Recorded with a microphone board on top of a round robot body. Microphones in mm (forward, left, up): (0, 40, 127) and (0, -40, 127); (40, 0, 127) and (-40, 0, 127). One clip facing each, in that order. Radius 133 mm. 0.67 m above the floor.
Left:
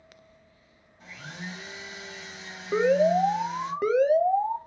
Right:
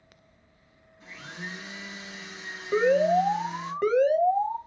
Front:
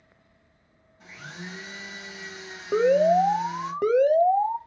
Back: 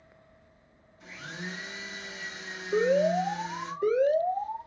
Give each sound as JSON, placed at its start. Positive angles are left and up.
{"t": 1.0, "sound": "a blender", "azimuth_deg": 65, "distance_m": 3.0}
{"t": 2.7, "sound": "an alarm", "azimuth_deg": 10, "distance_m": 0.7}